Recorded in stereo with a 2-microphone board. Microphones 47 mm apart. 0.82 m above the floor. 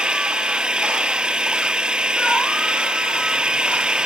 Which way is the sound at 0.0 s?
20° right (ahead or behind).